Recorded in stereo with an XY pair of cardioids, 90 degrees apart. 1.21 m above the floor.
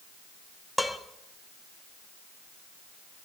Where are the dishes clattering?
Straight ahead, 1.6 m.